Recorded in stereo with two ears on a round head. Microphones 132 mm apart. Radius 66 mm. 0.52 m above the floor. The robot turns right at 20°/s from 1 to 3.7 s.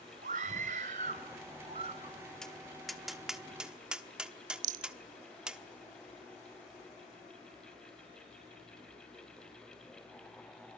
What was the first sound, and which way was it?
A scream, 55° right (ahead or behind).